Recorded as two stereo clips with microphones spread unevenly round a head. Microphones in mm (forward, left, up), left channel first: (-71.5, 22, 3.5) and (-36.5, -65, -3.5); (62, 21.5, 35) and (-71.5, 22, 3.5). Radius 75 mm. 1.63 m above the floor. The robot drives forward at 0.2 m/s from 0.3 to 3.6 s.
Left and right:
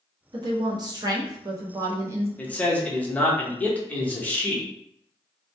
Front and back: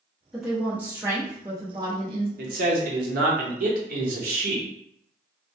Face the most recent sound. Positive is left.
turn(degrees=-175)